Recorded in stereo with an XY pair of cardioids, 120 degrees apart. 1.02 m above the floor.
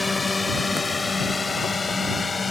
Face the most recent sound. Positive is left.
turn(degrees=30)